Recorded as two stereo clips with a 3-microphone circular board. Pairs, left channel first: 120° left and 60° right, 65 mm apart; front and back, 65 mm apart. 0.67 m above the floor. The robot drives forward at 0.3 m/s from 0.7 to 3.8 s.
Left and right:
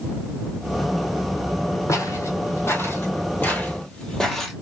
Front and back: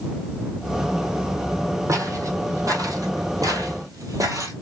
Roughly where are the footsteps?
Behind left.